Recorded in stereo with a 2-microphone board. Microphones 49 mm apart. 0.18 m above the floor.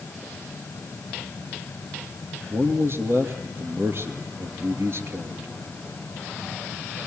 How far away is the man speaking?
About 2.5 m.